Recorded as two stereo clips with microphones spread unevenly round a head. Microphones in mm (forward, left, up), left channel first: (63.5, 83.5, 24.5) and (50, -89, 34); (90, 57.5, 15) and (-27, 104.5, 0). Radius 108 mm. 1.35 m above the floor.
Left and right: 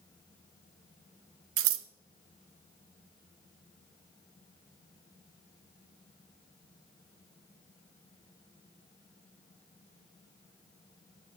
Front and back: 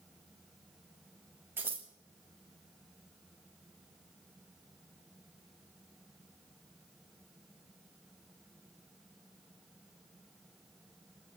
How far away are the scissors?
About 0.6 m.